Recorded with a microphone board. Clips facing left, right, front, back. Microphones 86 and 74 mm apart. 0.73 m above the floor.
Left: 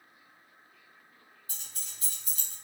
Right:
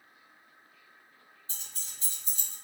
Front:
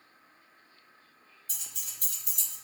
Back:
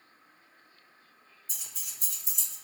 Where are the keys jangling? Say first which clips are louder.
Right 1 dB, front 1 dB; 30° right, 1.3 m; by 2.5 s 35° right, 0.6 m.